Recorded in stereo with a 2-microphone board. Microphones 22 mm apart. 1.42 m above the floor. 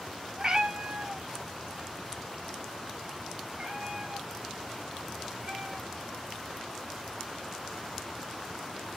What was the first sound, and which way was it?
A cat meowing, 30° right (ahead or behind).